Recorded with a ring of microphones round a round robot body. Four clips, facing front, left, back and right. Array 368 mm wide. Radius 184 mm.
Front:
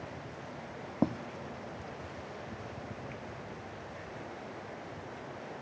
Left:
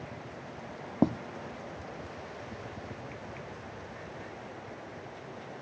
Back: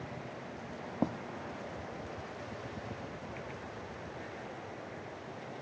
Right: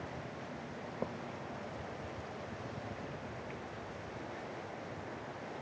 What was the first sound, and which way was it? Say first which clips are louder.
Writing: left 14 dB, front 3 dB; 70° left.